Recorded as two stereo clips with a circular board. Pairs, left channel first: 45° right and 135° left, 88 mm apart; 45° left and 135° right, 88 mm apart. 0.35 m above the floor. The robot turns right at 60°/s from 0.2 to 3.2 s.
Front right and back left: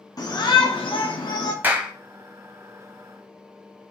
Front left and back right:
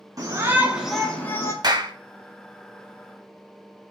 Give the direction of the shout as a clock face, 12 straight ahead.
3 o'clock.